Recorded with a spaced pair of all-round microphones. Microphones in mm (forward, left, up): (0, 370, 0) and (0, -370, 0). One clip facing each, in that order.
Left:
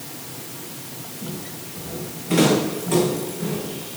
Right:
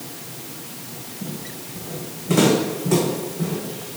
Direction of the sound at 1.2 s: 75° right (ahead or behind).